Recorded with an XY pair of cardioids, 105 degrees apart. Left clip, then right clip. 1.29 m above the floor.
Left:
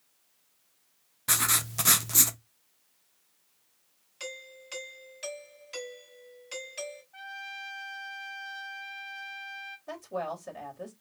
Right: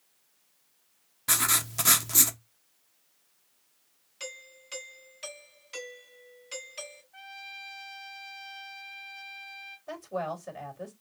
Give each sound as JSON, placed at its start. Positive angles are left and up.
{"t": 1.3, "sound": "writing", "azimuth_deg": 5, "distance_m": 0.7}
{"t": 4.2, "sound": "a doorbell", "azimuth_deg": 20, "distance_m": 4.0}
{"t": 7.1, "sound": "a trumpet", "azimuth_deg": 15, "distance_m": 1.1}
{"t": 9.9, "sound": "a woman speaking", "azimuth_deg": 10, "distance_m": 3.0}